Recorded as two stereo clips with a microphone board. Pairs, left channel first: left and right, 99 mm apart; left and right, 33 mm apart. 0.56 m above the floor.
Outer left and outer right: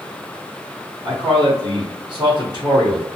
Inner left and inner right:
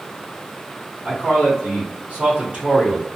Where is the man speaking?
40° right (ahead or behind), 1.1 m.